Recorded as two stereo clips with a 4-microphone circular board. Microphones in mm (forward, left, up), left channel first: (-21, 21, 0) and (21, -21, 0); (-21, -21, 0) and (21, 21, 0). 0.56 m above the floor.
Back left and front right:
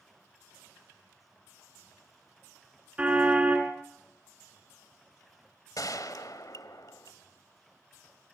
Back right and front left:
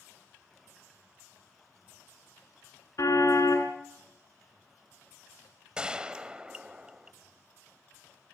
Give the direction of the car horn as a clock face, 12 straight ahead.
4 o'clock.